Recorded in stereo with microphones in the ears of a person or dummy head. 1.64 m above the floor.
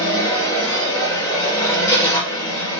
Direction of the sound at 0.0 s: 15° left (ahead or behind).